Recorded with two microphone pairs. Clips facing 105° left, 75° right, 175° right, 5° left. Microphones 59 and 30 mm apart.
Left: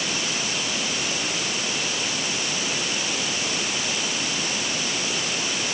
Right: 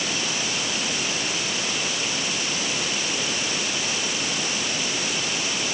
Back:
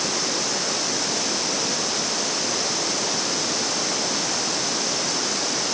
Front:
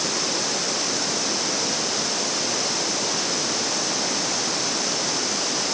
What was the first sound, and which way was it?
Only background noise.